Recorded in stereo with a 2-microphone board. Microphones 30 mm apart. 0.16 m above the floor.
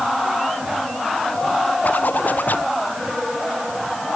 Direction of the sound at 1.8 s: 80° left.